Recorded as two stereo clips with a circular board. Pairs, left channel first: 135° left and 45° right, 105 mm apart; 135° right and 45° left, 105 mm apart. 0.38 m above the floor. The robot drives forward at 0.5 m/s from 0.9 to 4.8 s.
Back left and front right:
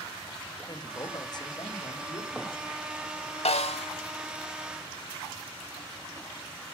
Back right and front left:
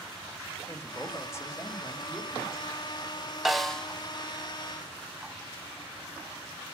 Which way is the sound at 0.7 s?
165° left.